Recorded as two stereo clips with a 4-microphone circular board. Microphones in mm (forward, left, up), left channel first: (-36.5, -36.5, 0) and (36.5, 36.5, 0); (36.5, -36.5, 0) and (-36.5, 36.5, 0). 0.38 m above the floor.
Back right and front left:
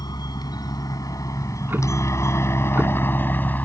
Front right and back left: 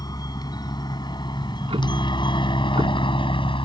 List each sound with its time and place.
0.0 s a helicopter: 90° right; by 3.7 s 65° right
1.4 s ticking: 115° left